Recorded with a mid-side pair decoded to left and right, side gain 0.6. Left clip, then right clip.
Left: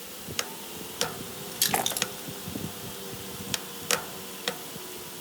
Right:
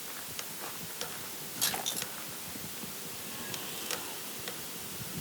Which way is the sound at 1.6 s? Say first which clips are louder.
Left 7 dB; 50° left.